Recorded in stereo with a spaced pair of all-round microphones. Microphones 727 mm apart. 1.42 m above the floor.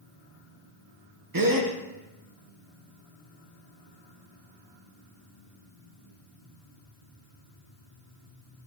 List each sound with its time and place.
1.3 s a gasp: 30° right (ahead or behind), 0.8 m